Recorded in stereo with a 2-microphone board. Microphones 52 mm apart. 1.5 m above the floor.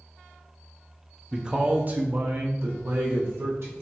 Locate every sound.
1.3 s a man speaking: 10° right (ahead or behind), 0.5 m; by 3.7 s 60° right (ahead or behind), 1.6 m